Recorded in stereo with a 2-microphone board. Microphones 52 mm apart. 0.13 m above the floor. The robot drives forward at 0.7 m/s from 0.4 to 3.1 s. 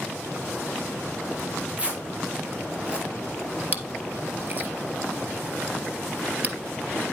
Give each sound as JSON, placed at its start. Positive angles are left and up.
{"t": 1.4, "sound": "tearing paper", "side_deg": -25, "distance_m": 1.8}
{"t": 3.7, "sound": "chewing", "side_deg": -35, "distance_m": 1.5}